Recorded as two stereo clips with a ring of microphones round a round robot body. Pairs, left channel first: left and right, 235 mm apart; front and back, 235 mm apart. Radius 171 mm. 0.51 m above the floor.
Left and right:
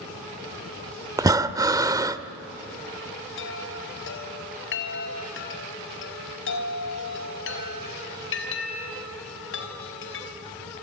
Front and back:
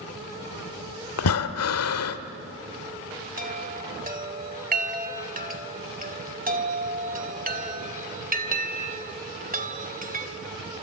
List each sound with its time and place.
1.2 s breathing: 15° right, 1.2 m
3.4 s a chime: 130° left, 3 m